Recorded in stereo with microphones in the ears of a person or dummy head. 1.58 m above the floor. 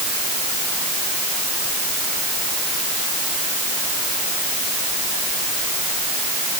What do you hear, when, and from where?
Only background noise.